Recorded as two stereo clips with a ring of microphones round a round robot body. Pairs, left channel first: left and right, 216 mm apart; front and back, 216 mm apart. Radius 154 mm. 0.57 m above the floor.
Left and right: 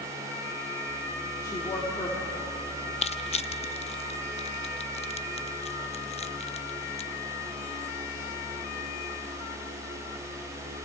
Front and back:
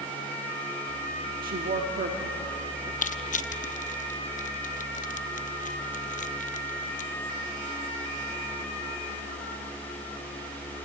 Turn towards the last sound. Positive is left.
turn(degrees=40)